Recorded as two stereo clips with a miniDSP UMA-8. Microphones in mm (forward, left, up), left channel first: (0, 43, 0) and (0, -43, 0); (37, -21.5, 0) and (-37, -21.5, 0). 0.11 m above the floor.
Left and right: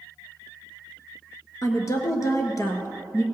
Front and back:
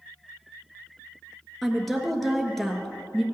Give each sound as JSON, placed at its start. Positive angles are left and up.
{"t": 1.6, "sound": "a woman speaking", "azimuth_deg": 85, "distance_m": 1.3}